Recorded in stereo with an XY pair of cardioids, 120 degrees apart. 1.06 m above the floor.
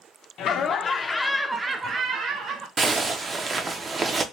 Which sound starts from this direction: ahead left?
Laughter, at 0.4 s.